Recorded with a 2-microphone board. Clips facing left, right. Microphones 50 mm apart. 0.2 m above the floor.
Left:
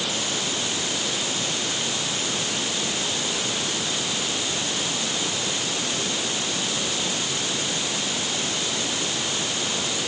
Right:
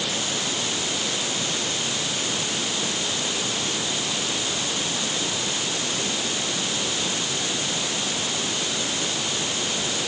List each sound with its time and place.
Only background noise.